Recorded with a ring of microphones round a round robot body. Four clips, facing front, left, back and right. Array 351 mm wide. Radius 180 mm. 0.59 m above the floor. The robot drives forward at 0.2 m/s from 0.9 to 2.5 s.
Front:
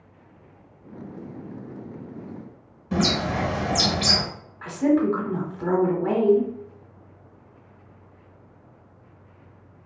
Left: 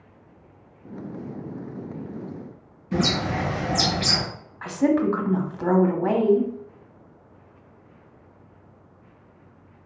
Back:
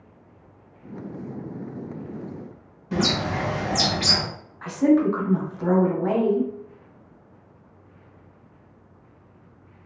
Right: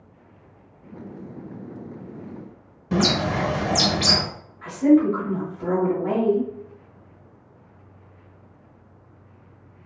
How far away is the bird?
About 0.9 m.